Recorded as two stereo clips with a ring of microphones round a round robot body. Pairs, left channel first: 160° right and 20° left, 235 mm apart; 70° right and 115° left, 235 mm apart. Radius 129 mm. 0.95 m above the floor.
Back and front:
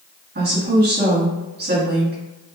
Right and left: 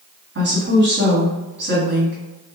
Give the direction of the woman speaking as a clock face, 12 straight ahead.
10 o'clock.